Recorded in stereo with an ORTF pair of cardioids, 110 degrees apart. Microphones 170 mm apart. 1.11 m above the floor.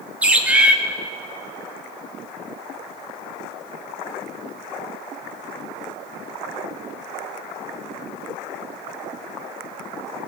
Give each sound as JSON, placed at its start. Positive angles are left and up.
{"t": 0.2, "sound": "a bird", "azimuth_deg": -10, "distance_m": 0.9}